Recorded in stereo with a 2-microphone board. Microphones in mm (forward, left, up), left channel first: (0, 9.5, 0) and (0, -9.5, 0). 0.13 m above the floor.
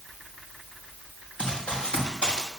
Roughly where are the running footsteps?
Left.